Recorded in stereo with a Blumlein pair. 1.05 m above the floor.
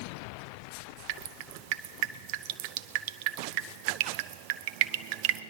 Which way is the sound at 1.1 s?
45° right.